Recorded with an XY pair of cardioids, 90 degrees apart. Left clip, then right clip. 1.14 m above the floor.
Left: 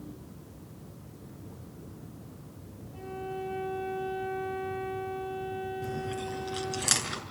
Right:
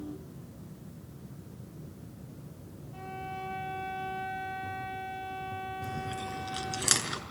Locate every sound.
2.9 s a violin: 55° right, 4.5 m
5.8 s chewing: 15° right, 5 m